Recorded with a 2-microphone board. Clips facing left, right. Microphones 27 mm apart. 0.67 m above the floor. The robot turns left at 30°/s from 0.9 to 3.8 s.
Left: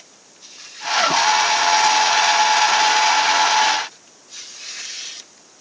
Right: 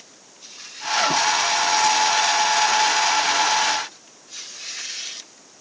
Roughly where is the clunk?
No clunk in this recording.